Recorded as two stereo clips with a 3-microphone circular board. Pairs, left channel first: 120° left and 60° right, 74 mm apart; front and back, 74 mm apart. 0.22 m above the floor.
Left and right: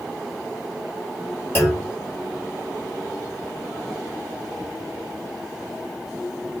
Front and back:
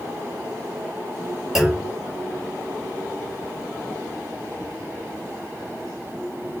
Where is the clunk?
100° left, 1.4 m.